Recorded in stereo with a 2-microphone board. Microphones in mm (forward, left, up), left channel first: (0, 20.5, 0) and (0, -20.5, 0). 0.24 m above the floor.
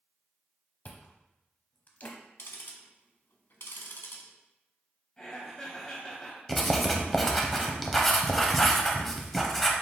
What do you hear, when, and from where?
0.8 s chewing: 40° left (ahead or behind), 0.8 m
2.4 s ticking: 60° left (ahead or behind), 0.8 m
5.2 s laughter: 15° left (ahead or behind), 1.0 m
6.5 s writing: 5° left (ahead or behind), 0.7 m